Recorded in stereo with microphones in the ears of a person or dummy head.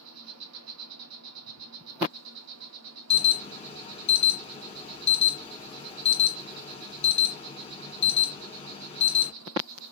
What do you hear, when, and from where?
0.0 s an insect: 80° right, 1.0 m
3.1 s an alarm: 30° left (ahead or behind), 1.4 m